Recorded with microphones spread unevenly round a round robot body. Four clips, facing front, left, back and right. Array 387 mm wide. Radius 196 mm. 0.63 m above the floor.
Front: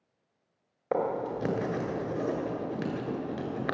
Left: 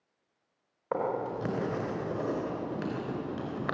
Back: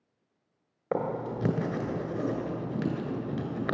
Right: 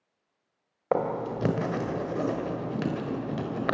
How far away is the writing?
About 3.5 m.